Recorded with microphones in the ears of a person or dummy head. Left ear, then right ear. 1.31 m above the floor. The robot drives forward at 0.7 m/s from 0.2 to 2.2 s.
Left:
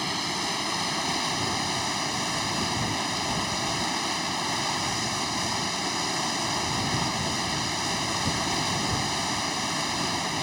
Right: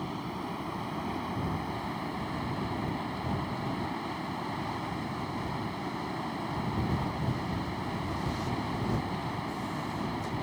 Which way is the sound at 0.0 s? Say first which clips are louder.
Left 9 dB; 75° left (ahead or behind).